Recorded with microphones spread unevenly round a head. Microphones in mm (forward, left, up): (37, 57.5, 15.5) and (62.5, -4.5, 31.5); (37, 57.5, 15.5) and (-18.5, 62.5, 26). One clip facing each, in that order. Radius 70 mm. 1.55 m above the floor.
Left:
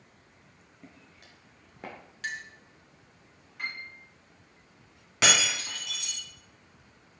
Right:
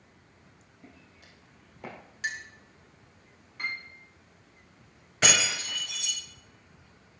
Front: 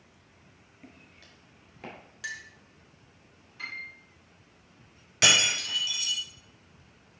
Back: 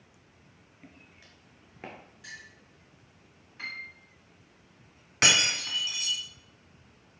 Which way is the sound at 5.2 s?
150° left.